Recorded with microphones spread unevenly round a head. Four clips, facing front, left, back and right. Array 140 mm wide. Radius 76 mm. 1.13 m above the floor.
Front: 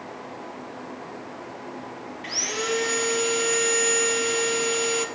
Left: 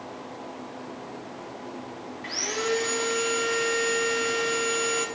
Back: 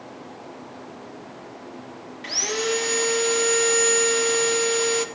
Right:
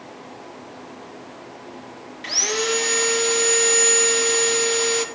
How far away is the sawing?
About 1.5 m.